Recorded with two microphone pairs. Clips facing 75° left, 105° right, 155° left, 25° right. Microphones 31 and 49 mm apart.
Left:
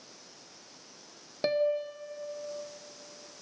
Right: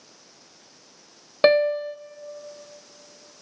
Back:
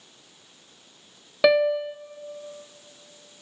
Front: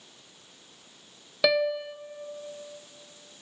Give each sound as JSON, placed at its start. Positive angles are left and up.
{"t": 1.4, "sound": "a piano", "azimuth_deg": -140, "distance_m": 0.6}